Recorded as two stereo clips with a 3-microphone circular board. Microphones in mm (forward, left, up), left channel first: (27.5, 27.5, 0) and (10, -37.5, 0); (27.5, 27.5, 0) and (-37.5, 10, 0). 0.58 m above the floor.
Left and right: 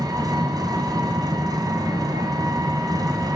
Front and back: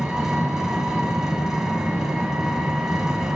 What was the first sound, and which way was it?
An engine running, 85° right.